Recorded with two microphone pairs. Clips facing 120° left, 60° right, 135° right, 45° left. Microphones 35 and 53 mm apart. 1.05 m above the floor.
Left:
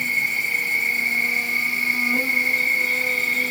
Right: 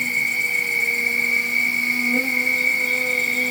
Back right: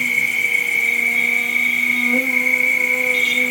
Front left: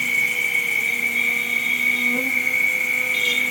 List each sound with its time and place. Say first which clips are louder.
0.0 s an insect: right 1 dB, back right 3 dB; 160° right, 1.0 m